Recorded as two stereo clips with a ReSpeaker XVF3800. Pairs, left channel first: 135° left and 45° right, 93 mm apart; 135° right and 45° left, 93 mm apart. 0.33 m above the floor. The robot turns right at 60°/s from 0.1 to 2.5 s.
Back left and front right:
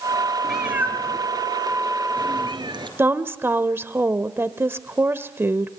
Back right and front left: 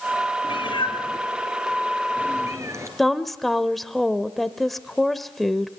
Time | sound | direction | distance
0.4 | a cat meowing | 135° right | 3.5 m
3.0 | a woman speaking | 50° right | 0.9 m